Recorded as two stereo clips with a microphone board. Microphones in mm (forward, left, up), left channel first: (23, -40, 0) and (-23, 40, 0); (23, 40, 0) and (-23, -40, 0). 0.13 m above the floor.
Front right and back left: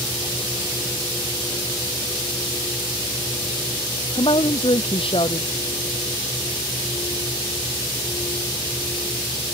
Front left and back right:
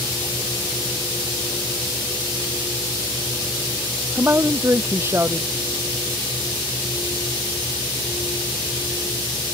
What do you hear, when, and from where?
4.2 s a woman speaking: 55° right